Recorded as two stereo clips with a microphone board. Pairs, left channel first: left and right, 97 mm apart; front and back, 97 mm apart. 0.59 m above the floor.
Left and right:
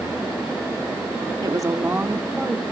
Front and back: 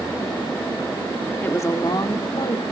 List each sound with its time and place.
1.4 s a woman speaking: 65° right, 1.1 m; by 2.6 s 5° left, 1.7 m